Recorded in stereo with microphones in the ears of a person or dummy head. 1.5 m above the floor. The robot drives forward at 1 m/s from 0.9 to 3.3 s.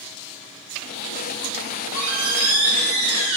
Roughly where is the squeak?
Right.